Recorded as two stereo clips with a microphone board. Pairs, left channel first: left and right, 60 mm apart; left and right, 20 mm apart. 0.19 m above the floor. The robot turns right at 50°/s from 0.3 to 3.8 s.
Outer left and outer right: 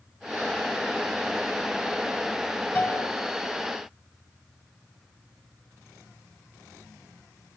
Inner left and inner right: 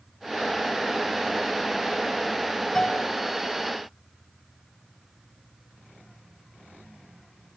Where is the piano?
20° left (ahead or behind), 1.9 m; by 3.1 s 15° left (ahead or behind), 1.9 m.